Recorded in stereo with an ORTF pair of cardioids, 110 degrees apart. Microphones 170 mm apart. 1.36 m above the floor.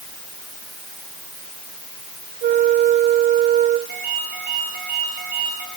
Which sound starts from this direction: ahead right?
A flute, at 2.4 s.